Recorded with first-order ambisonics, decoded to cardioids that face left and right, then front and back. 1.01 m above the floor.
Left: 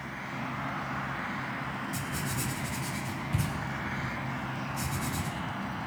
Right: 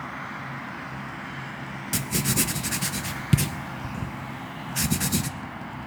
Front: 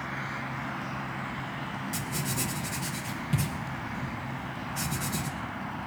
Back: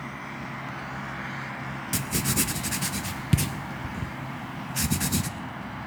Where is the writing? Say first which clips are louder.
Right 7 dB, back 8 dB; 125° right, 0.8 m.